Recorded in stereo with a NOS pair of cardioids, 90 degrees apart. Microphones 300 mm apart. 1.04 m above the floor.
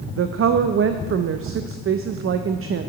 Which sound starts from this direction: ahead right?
A woman speaking, at 0.2 s.